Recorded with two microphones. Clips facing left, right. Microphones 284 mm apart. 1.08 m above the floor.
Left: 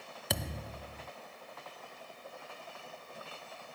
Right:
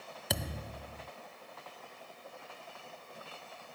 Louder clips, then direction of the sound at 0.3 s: Even; centre (ahead or behind).